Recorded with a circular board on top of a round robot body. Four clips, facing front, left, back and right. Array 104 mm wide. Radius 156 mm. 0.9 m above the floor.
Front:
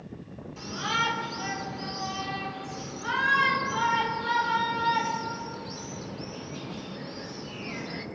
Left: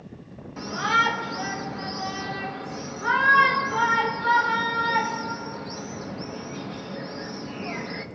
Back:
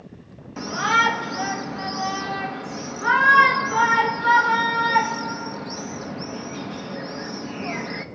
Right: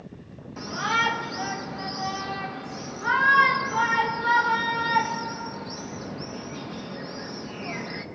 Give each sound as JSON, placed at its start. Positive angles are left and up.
{"t": 0.6, "sound": "a shout", "azimuth_deg": 180, "distance_m": 0.9}